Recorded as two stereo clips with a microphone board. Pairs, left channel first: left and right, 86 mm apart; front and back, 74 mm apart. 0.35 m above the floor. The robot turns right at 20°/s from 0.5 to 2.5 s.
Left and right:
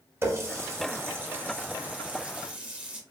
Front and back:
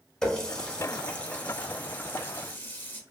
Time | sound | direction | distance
0.2 | a running tap | 70° right | 0.6 m